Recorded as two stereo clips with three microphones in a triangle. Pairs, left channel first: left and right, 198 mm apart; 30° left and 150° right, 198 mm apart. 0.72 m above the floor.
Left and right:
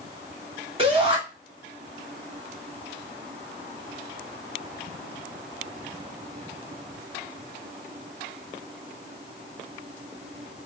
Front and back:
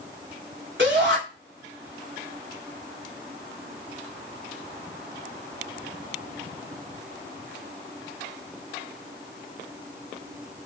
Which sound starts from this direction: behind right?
A shout, at 0.8 s.